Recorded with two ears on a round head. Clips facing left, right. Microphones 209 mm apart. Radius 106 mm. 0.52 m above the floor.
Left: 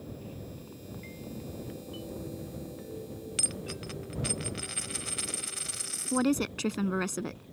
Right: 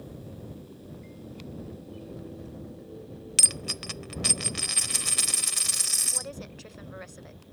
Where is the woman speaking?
80° left.